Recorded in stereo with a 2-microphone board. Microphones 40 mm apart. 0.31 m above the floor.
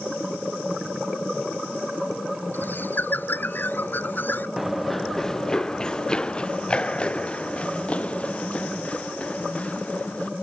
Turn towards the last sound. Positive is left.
turn(degrees=35)  # may be behind; listen again after turning